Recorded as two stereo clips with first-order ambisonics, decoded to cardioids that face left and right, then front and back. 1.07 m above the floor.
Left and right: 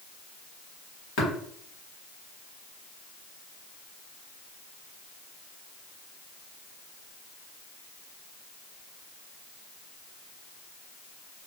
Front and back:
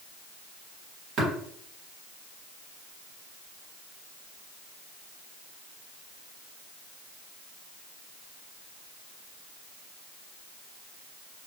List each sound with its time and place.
1.2 s tapping: 125° left, 1.3 m